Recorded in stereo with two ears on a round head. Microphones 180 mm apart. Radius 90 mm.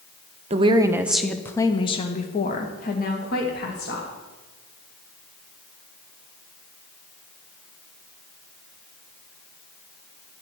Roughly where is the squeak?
No squeak in this recording.